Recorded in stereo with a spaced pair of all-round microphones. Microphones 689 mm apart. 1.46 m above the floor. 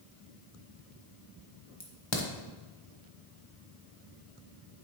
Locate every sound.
1.8 s a crack: 40° left (ahead or behind), 1.0 m